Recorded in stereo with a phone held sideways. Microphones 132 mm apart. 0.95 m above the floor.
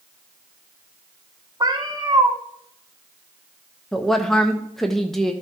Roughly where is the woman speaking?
Centre.